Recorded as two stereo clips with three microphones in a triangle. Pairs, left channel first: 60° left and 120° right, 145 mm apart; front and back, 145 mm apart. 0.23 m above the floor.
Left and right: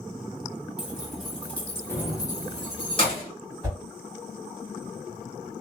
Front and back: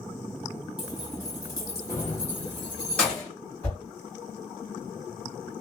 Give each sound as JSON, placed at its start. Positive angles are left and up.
{"t": 0.8, "sound": "keys jangling", "azimuth_deg": -40, "distance_m": 1.0}
{"t": 3.6, "sound": "a whoosh", "azimuth_deg": -70, "distance_m": 1.9}